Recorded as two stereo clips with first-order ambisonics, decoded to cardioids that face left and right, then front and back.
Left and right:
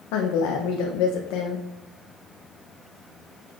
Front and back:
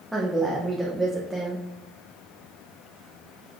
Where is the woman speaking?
90° left, 0.5 m.